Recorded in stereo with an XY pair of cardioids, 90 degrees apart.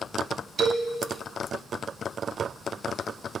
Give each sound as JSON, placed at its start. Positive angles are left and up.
{"t": 0.6, "sound": "a man speaking", "azimuth_deg": -55, "distance_m": 1.5}